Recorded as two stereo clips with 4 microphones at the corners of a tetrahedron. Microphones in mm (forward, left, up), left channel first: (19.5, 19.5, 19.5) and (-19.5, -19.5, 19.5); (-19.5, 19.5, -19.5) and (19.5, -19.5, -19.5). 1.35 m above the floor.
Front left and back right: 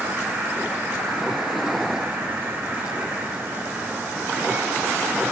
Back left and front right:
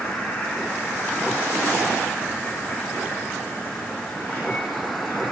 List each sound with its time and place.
0.0 s an insect: straight behind, 5 m